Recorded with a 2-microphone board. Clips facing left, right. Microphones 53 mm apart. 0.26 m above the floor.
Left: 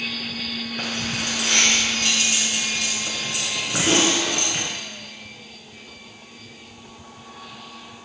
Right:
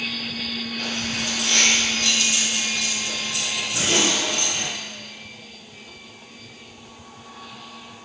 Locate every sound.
0.8 s keys jangling: 70° left (ahead or behind), 2.5 m